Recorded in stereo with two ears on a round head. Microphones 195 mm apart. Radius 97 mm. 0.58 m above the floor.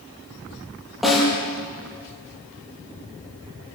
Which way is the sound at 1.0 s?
Centre (ahead or behind).